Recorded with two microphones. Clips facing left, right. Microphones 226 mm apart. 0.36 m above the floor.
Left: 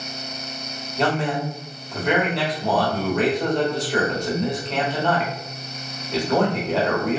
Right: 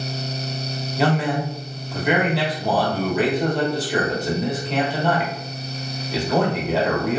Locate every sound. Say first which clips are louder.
1.0 s a man speaking: right 2 dB; 5° right (ahead or behind), 0.9 m